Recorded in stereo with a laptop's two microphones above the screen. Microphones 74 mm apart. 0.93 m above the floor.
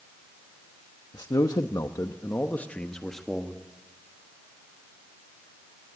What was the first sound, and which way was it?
A man speaking, 70° left (ahead or behind).